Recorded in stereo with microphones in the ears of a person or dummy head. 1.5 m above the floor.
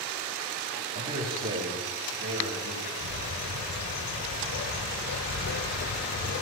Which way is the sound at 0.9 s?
50° right (ahead or behind).